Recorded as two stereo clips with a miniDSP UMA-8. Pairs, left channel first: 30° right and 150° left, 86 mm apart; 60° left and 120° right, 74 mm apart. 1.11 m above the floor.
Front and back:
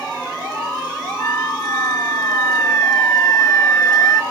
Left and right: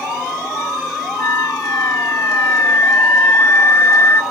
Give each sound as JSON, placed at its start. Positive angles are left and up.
{"t": 1.2, "sound": "a flute", "azimuth_deg": 10, "distance_m": 1.0}